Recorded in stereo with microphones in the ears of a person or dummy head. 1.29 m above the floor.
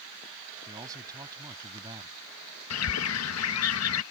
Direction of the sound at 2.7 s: 80° left.